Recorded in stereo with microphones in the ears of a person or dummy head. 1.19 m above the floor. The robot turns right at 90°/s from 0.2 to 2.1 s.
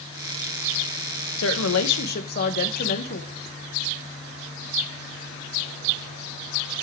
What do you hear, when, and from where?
1.4 s a woman speaking: 65° left, 0.7 m; by 3.3 s 130° left, 0.7 m